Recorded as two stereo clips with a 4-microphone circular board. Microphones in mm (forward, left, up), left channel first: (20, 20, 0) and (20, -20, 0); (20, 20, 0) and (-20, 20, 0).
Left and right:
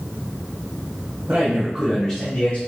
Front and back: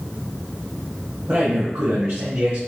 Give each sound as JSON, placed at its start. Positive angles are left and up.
{"t": 1.3, "sound": "a man speaking", "azimuth_deg": -140, "distance_m": 0.9}